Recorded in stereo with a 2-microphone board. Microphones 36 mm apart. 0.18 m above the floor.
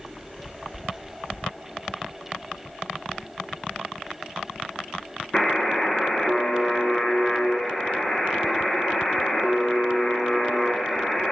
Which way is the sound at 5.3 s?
15° left (ahead or behind).